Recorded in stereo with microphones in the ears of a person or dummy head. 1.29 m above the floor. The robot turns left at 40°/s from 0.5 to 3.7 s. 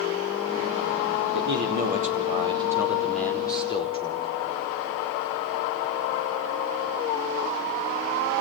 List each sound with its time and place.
1.3 s a man speaking: 115° right, 5 m; by 4.3 s 150° left, 5 m